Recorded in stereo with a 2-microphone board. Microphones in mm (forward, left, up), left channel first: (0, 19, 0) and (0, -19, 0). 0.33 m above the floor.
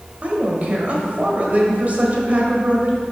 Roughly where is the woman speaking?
Right.